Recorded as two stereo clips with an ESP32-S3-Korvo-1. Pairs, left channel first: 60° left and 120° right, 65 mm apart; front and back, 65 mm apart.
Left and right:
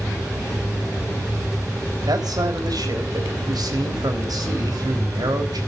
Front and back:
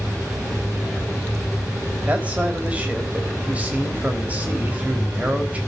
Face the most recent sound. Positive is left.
turn(degrees=-110)